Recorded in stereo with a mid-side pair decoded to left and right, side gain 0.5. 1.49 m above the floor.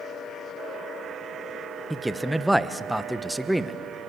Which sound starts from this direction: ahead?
A man speaking, at 1.9 s.